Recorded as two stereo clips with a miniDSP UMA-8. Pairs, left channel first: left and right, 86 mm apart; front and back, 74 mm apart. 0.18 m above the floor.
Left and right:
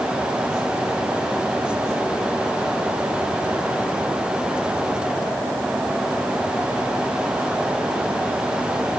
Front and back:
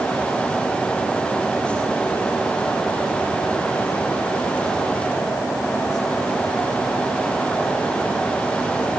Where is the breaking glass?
No breaking glass in this recording.